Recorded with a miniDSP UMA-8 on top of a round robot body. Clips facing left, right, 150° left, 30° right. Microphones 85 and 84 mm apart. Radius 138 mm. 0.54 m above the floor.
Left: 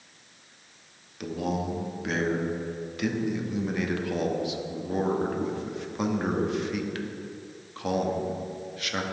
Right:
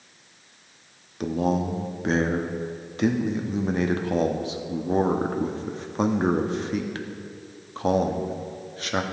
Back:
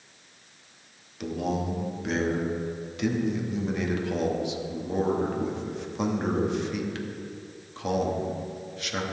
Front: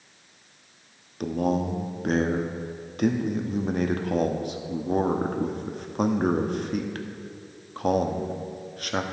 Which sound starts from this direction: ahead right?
A man speaking, at 1.2 s.